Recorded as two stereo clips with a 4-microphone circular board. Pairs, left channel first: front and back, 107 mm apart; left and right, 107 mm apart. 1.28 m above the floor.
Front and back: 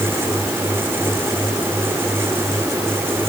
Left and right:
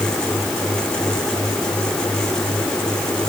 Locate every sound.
Only background noise.